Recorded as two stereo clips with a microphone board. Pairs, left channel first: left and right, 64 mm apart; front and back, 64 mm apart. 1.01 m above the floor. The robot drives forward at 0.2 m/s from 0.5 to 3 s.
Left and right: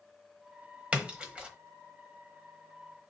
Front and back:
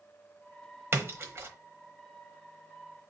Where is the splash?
150° right, 1.0 m; by 1.5 s 155° right, 1.0 m.